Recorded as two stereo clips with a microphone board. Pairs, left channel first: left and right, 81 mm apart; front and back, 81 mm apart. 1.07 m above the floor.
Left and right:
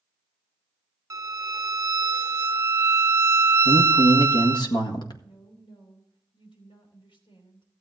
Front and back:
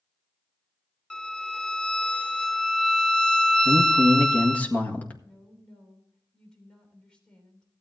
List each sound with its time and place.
1.1 s a violin: 75° right, 0.8 m
3.6 s a man speaking: 70° left, 1.7 m
5.2 s a woman speaking: 80° left, 3 m